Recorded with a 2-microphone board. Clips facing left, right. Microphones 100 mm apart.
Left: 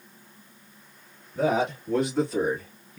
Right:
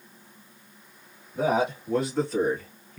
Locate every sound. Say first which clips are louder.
1.4 s a man speaking: even; 10° right (ahead or behind), 2.5 m; by 3.0 s 10° left (ahead or behind), 2 m